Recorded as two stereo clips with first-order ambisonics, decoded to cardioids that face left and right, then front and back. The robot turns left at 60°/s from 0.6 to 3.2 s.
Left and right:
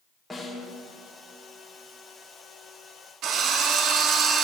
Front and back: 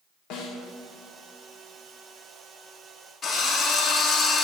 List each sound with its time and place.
0.3 s a snare drum: 5° left, 1.4 m; by 0.7 s straight ahead, 1.4 m
3.2 s a drill: 65° right, 1.2 m